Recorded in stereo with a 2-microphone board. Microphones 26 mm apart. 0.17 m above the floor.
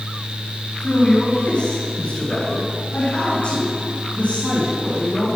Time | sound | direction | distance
0.8 | a man speaking | 25° left (ahead or behind) | 1.7 m